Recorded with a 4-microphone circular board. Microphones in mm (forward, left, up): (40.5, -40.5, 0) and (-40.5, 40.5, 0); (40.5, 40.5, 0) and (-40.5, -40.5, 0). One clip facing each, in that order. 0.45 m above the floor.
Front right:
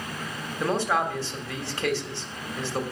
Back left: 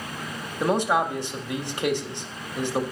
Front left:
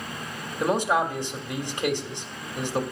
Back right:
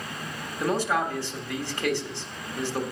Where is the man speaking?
85° left, 1.2 m.